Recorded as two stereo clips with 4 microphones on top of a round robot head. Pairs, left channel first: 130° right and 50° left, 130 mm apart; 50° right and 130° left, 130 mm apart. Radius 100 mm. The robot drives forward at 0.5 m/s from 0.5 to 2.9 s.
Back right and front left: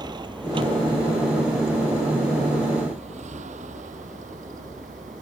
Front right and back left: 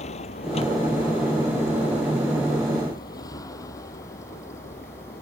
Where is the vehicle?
10° right; by 5.2 s 25° left.